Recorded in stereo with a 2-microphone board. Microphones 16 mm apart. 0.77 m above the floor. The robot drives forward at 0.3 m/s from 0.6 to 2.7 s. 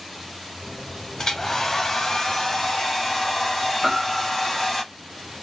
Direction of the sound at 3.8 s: 15° right (ahead or behind).